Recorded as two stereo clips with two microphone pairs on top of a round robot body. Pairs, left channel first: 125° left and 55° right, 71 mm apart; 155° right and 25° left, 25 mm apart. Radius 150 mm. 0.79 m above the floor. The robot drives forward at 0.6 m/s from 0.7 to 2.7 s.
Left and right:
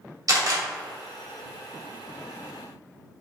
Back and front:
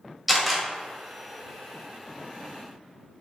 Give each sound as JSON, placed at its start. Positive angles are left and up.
{"t": 0.3, "sound": "a camera shutter", "azimuth_deg": -65, "distance_m": 1.5}